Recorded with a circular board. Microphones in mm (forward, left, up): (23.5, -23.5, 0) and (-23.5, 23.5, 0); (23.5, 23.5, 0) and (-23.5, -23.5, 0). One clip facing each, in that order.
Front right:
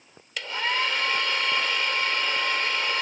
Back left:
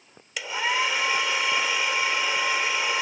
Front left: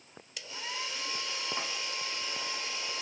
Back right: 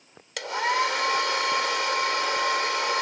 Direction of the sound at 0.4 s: 145° right.